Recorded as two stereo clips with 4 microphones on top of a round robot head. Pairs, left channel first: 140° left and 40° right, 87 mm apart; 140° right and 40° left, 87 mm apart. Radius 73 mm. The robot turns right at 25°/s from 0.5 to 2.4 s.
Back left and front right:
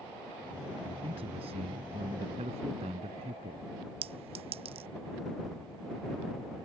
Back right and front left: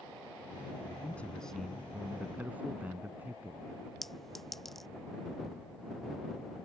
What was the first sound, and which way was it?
A man speaking, 65° right.